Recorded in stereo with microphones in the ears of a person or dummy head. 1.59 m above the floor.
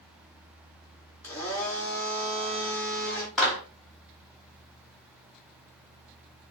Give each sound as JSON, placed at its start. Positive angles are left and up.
{"t": 1.2, "sound": "a blender", "side_deg": 15, "distance_m": 1.9}
{"t": 3.4, "sound": "a clap", "side_deg": 5, "distance_m": 2.0}